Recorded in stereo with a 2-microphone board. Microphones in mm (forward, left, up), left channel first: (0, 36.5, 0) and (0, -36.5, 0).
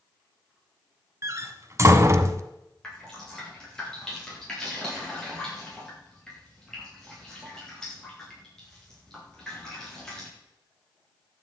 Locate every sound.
1.2 s a door slam: 35° right (ahead or behind), 0.9 m
2.8 s dripping: 10° left (ahead or behind), 7.5 m